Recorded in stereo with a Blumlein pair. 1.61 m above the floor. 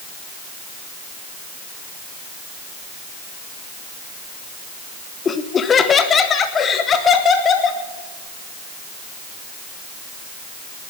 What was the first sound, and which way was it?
Laughter, 20° left.